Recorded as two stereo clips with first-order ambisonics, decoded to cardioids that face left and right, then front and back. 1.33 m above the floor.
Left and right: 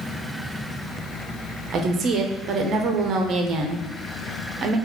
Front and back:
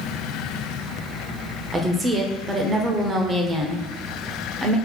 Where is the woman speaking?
120° right, 0.5 m.